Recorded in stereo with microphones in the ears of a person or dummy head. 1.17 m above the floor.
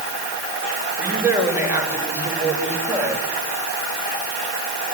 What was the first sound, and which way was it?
A woman speaking, 15° right (ahead or behind).